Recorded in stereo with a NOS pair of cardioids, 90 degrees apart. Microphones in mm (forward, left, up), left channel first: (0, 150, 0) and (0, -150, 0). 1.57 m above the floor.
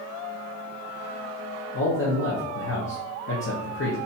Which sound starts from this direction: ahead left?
A man speaking, at 1.7 s.